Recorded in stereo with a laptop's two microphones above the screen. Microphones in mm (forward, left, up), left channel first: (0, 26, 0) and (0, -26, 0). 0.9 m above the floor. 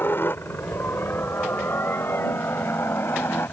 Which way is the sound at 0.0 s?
45° left (ahead or behind).